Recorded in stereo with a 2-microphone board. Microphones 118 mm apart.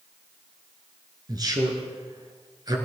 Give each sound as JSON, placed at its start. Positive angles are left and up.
{"t": 1.3, "sound": "a man speaking", "side_deg": -35, "distance_m": 1.7}